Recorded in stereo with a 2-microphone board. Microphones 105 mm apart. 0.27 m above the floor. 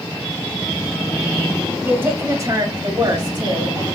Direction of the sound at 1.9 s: 20° right (ahead or behind).